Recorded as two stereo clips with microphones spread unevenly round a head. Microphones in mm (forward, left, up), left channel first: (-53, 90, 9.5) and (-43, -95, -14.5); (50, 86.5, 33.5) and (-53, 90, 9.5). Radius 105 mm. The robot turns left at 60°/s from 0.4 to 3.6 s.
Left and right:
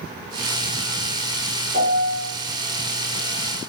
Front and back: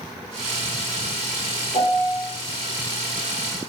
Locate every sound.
1.7 s a piano: 35° right, 0.7 m; by 2.3 s 70° right, 0.7 m